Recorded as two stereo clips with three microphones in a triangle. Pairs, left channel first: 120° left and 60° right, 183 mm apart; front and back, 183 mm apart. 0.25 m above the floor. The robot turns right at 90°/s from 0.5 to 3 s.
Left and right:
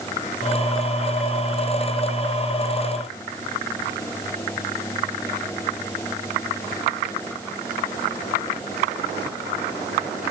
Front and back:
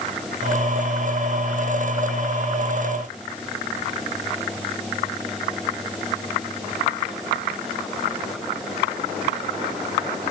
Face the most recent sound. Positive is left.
No sound to turn to.